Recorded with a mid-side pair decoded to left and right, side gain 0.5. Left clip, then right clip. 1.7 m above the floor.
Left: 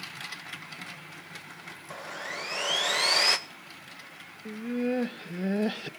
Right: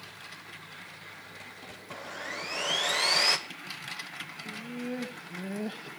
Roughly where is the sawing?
Ahead.